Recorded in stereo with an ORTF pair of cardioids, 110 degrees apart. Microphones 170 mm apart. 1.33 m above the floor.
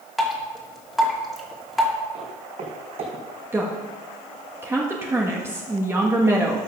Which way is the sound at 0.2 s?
Straight ahead.